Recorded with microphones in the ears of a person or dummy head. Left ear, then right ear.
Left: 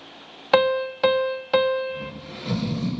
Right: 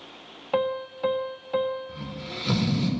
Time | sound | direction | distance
0.5 | a piano | 70° left (ahead or behind) | 0.5 m
1.9 | snoring | 55° right (ahead or behind) | 4 m